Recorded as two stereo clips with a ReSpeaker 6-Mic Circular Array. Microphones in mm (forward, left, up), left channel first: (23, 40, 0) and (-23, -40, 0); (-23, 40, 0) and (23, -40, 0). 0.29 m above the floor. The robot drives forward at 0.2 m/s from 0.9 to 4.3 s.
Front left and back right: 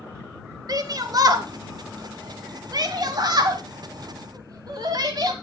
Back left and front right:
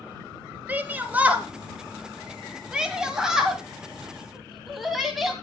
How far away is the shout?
About 1.2 m.